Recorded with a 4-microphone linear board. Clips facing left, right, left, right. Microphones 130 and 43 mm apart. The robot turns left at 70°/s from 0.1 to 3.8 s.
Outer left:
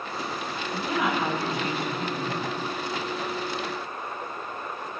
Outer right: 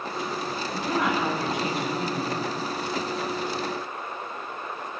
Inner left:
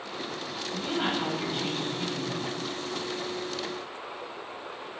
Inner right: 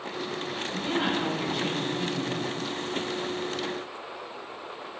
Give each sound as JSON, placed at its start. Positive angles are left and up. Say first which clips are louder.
{"t": 0.7, "sound": "a woman speaking", "louder": "outer right 1 dB, inner right 1 dB", "azimuth_deg": -175, "distance_m": 1.8}